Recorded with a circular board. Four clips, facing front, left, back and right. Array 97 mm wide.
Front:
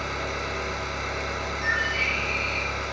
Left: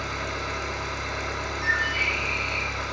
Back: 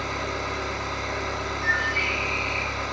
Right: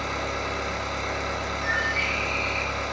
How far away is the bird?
About 1.5 m.